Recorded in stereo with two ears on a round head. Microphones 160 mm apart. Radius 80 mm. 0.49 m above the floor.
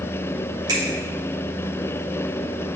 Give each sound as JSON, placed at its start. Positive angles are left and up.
{"t": 0.7, "sound": "a finger snap", "side_deg": -20, "distance_m": 2.0}